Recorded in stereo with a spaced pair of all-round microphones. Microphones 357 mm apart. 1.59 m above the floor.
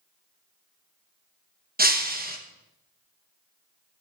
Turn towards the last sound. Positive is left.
turn(degrees=-25)  # may be behind; listen again after turning